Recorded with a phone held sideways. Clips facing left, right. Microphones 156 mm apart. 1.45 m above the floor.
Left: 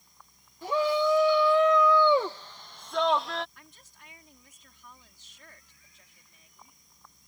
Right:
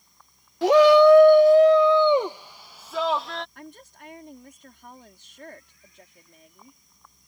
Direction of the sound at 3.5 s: 60° right (ahead or behind).